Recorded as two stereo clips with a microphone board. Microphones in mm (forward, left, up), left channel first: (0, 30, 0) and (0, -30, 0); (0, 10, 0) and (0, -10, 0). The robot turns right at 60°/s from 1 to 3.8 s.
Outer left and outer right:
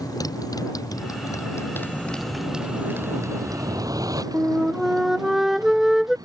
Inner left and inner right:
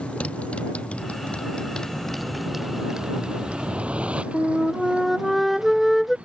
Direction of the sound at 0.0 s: 100° left.